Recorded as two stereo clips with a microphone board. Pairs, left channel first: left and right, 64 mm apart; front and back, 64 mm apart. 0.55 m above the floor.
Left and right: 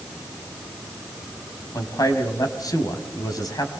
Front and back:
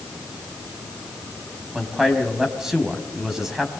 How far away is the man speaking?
About 4 m.